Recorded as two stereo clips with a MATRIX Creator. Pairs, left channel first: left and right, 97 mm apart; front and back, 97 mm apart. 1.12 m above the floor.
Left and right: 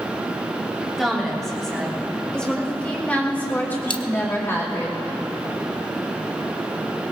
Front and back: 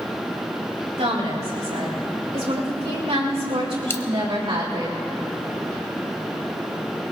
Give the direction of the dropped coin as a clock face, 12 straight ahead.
10 o'clock.